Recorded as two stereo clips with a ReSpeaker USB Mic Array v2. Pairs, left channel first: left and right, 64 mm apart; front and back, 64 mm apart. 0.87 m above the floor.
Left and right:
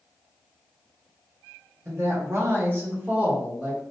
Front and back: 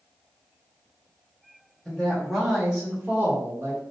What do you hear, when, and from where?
1.9 s a woman speaking: 80° right, 1.4 m; by 3.8 s 170° right, 1.1 m